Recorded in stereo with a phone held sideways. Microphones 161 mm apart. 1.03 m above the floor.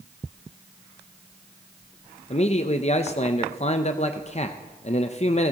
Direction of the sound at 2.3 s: 45° left (ahead or behind).